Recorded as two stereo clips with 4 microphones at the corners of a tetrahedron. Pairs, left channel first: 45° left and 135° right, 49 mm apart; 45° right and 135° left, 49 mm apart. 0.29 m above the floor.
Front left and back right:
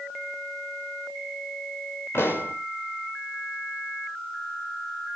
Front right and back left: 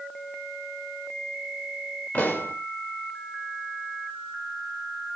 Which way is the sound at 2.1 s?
5° left.